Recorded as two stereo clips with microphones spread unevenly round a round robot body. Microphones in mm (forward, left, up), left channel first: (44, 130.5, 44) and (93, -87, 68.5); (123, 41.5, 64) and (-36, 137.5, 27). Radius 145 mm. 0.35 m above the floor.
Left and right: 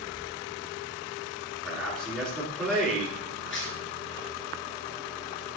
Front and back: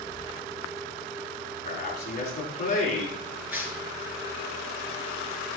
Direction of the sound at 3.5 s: 70° left.